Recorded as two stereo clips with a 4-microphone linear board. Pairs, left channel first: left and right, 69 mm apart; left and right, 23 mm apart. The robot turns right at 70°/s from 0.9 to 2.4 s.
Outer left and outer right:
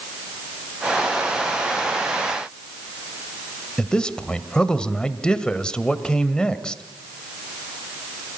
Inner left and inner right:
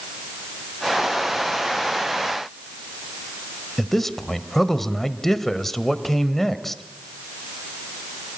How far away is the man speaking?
About 1.6 m.